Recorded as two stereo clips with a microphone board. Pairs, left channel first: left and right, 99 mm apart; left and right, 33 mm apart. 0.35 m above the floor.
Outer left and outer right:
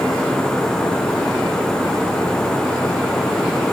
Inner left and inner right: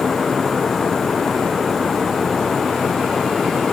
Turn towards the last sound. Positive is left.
No sound to turn to.